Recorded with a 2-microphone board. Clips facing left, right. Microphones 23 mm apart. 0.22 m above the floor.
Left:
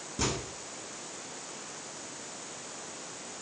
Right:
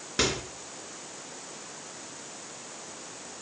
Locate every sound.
0.2 s a microwave: 70° right (ahead or behind), 2.5 m